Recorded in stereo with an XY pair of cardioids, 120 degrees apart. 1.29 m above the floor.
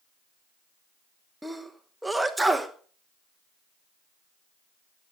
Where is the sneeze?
10° right, 0.9 m.